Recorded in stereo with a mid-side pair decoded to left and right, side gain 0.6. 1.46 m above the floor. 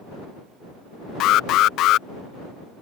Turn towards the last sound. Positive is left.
turn(degrees=60)